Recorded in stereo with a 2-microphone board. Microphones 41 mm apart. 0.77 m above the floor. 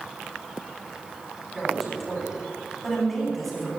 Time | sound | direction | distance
1.5 | a man speaking | 5° left (ahead or behind) | 6.5 m